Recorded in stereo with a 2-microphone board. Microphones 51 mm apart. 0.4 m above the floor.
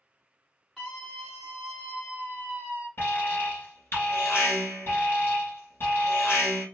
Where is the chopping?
I don't hear chopping.